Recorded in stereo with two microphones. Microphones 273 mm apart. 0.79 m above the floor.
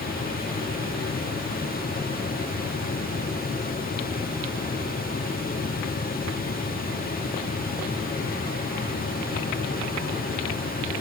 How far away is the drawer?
I don't hear a drawer.